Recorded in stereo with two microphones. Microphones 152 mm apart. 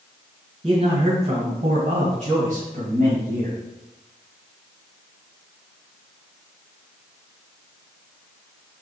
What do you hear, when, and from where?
0.6 s a man speaking: 40° right (ahead or behind), 2.5 m; by 3.6 s 70° right (ahead or behind), 2.5 m